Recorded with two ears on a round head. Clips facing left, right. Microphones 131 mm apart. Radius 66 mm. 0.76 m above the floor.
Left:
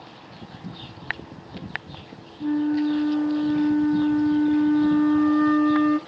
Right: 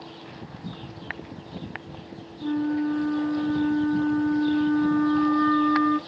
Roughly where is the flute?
Left.